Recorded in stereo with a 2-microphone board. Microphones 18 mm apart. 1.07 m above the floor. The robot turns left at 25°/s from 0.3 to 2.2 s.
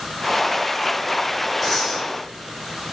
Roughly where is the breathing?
Centre.